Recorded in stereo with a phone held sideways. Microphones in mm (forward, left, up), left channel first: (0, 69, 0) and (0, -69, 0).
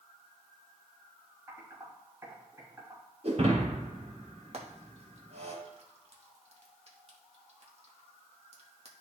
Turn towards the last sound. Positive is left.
turn(degrees=-50)  # may be behind; listen again after turning